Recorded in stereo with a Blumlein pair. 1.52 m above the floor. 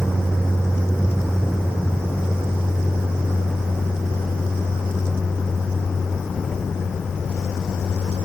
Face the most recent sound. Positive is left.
turn(degrees=20)